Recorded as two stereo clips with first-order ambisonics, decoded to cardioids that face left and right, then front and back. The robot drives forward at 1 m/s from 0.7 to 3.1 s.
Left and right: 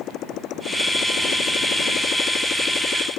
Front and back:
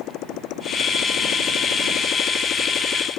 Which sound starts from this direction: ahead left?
A motorcycle, at 0.0 s.